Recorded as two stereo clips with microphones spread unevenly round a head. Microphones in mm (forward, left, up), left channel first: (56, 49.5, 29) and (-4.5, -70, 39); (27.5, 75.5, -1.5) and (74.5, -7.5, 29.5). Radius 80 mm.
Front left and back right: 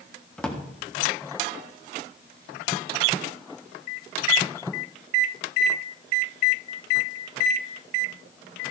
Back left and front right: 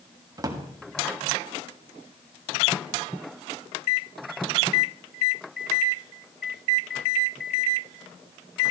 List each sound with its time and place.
0.4 s a drawer: 20° right, 1.7 m